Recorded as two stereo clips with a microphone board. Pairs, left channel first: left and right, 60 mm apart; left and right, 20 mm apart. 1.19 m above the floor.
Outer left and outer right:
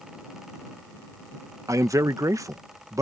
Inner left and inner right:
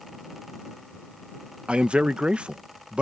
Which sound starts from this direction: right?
A man speaking, at 1.7 s.